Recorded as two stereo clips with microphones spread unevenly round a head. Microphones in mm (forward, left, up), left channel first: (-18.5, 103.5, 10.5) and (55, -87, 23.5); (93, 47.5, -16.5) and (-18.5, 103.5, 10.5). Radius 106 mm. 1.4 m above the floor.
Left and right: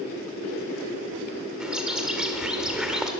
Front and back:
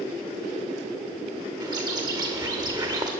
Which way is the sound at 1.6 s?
150° right.